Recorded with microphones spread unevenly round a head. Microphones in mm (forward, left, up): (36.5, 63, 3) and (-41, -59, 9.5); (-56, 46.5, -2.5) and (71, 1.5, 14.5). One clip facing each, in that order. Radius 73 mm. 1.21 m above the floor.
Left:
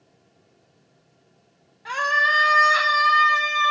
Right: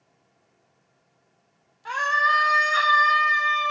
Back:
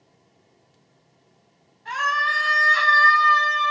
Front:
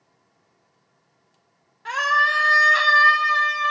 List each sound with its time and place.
1.9 s a scream: 20° right, 0.8 m; by 3.7 s 65° left, 0.9 m